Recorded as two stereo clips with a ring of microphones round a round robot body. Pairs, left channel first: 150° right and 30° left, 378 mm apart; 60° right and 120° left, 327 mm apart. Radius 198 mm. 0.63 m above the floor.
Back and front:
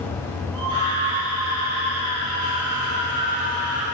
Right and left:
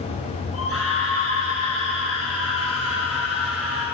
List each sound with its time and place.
0.5 s a scream: 15° right, 8 m